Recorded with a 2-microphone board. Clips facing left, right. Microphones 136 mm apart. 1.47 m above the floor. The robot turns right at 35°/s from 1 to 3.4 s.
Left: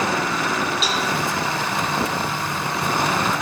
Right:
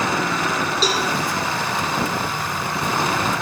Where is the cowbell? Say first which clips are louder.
Right 2 dB; 40° right (ahead or behind), 5.5 m; by 1.1 s 35° right (ahead or behind), 5.5 m.